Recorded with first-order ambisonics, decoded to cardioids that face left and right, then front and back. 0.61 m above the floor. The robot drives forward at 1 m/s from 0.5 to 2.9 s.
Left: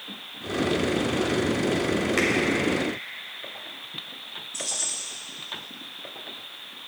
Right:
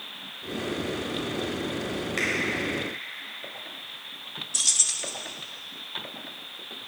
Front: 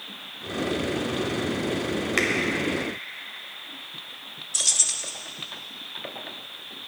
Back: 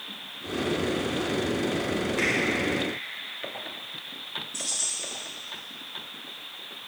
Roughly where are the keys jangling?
Ahead right.